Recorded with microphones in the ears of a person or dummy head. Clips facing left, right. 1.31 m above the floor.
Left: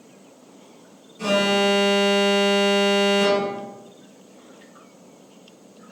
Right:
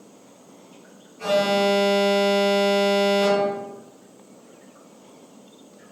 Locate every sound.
1.2 s an alarm: 50° left (ahead or behind), 2.5 m